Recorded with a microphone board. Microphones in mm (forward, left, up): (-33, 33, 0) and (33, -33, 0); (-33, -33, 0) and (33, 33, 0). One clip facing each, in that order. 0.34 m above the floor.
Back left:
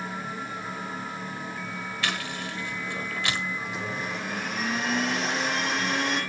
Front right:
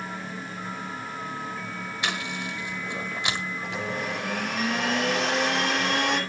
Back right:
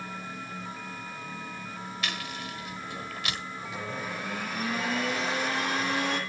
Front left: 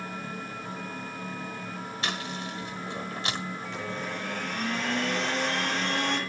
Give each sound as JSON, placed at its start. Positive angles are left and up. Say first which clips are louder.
{"t": 2.0, "sound": "chewing", "louder": "front right 1 dB, front left 4 dB", "azimuth_deg": 15, "distance_m": 1.7}
{"t": 3.6, "sound": "a blender", "louder": "front right 2 dB, front left 1 dB", "azimuth_deg": -50, "distance_m": 8.0}